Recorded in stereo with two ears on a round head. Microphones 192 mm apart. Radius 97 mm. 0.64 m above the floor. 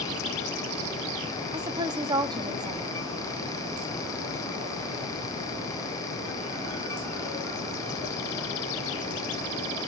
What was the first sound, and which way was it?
A woman speaking, 20° right (ahead or behind).